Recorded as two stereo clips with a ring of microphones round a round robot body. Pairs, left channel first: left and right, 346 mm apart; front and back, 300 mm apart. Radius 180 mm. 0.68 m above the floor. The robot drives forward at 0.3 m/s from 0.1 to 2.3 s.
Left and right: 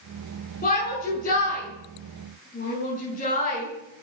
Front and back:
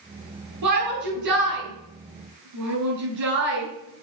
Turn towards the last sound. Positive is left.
turn(degrees=160)